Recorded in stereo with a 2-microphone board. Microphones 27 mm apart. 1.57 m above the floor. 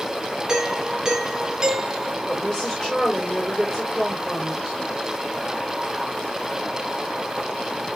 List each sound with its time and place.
0.5 s a doorbell: 20° right (ahead or behind), 1.8 m
2.3 s a woman speaking: 10° left (ahead or behind), 5.5 m